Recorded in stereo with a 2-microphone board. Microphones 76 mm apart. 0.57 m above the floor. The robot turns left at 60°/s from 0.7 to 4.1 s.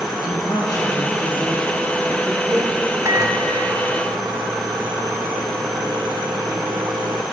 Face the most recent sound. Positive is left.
turn(degrees=-110)